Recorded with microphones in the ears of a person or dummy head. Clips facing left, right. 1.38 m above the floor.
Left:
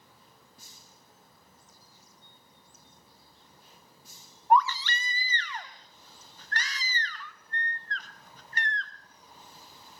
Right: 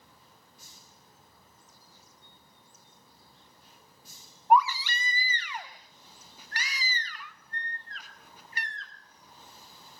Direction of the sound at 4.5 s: 10° right (ahead or behind).